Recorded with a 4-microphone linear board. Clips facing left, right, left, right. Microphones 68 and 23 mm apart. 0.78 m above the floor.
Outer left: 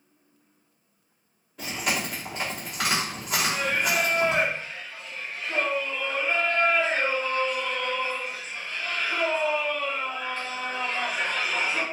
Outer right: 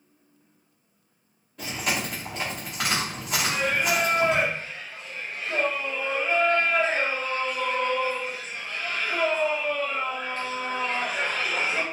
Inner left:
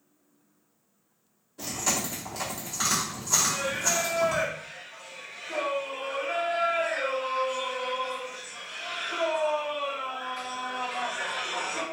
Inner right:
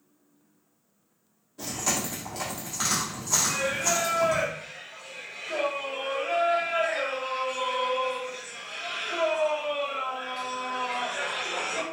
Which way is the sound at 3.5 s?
50° right (ahead or behind).